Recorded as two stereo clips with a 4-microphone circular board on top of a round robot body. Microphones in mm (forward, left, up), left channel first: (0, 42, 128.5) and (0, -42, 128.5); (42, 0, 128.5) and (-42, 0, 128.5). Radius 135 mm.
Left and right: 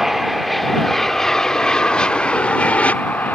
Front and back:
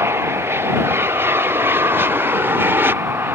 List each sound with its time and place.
0.0 s an aircraft: 175° right; by 3.4 s 145° left